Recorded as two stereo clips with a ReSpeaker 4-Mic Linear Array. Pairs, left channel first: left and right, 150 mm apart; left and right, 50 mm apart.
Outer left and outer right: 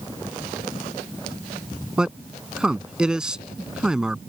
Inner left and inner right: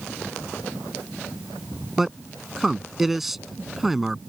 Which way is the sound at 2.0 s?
5° right (ahead or behind).